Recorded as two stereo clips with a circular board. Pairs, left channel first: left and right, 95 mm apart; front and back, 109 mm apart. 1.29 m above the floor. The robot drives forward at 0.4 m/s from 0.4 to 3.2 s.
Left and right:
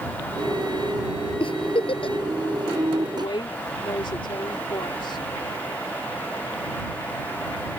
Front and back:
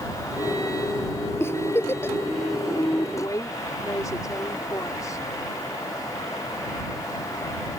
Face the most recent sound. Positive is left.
turn(degrees=60)